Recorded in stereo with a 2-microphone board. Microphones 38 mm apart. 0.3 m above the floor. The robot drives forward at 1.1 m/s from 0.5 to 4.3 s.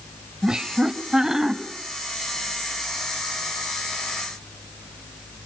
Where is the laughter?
20° right (ahead or behind), 1.1 m; by 1.6 s 10° right (ahead or behind), 1.9 m.